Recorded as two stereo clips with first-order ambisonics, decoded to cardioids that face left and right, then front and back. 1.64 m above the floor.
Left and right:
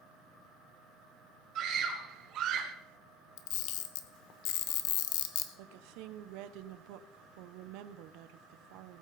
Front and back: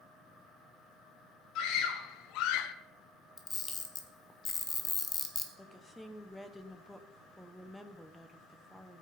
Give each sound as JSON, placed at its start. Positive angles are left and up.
{"t": 1.6, "sound": "a scream", "azimuth_deg": -40, "distance_m": 2.0}
{"t": 3.4, "sound": "a camera shutter", "azimuth_deg": 70, "distance_m": 1.2}
{"t": 5.6, "sound": "a woman speaking", "azimuth_deg": -85, "distance_m": 0.8}